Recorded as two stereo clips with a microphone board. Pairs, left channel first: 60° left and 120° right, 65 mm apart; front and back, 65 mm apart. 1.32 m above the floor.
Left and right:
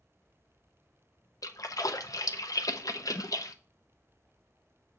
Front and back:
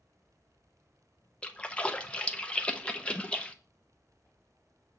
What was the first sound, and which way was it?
A splash, 70° left.